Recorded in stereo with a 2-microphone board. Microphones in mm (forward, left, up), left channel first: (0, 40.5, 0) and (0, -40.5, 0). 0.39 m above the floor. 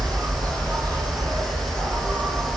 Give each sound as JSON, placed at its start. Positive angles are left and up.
{"t": 0.0, "sound": "an insect", "side_deg": -55, "distance_m": 1.5}